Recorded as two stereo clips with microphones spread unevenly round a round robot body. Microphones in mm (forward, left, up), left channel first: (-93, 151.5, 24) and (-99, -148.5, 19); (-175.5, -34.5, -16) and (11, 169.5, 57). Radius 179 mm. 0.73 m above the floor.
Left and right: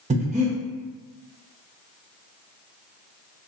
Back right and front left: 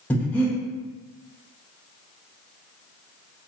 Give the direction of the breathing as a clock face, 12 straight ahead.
3 o'clock.